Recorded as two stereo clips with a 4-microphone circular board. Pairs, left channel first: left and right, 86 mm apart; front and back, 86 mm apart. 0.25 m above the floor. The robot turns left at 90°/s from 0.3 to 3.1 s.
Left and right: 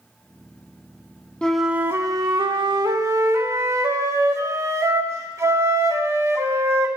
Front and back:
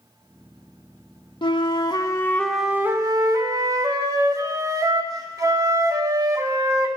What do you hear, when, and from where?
1.4 s a flute: 15° left, 0.5 m; by 6.9 s 140° right, 0.5 m